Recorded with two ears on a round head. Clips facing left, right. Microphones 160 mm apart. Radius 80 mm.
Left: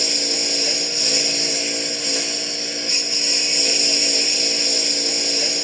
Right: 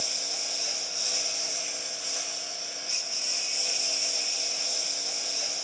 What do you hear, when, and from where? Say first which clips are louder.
0.0 s a lawn mower: left 14 dB; 80° left